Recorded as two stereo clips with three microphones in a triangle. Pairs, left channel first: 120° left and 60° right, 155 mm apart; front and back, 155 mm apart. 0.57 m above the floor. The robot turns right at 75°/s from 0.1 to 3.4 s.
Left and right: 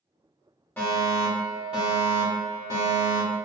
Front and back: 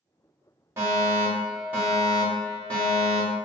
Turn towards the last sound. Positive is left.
turn(degrees=-5)